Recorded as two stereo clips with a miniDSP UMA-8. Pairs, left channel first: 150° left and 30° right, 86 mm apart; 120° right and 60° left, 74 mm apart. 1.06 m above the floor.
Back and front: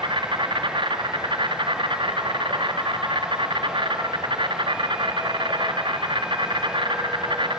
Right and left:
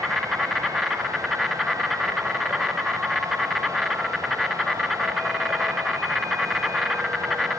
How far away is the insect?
About 4 m.